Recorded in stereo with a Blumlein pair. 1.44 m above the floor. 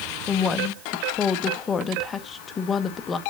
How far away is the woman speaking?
About 1.2 m.